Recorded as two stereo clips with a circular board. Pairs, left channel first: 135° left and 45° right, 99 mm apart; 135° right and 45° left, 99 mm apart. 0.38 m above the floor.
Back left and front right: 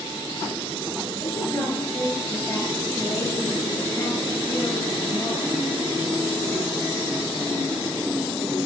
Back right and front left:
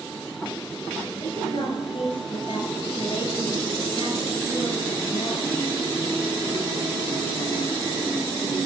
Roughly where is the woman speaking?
Behind.